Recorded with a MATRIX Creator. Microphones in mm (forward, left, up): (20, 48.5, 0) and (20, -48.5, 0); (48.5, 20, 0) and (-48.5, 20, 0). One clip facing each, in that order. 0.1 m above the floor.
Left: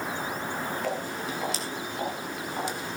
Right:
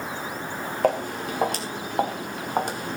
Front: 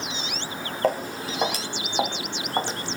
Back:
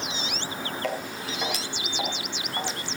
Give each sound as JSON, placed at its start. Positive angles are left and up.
{"t": 0.8, "sound": "footsteps", "azimuth_deg": -55, "distance_m": 3.5}